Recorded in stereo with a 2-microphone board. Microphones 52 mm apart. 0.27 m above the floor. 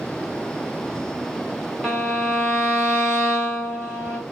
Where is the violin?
Centre (ahead or behind), 1.2 m.